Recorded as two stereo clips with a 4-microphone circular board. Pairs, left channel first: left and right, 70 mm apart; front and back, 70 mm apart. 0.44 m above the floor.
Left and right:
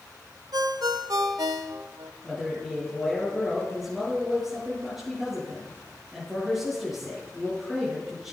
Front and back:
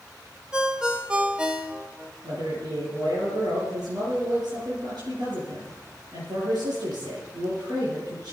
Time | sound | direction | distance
0.5 | a ringtone | 105° right | 1.1 m
2.2 | a man speaking | 175° right | 6 m